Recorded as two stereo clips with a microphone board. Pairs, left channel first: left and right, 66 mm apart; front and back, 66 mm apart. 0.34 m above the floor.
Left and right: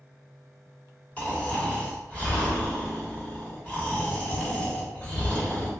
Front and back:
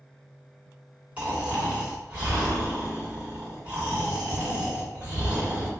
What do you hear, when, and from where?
1.2 s snoring: 135° left, 1.5 m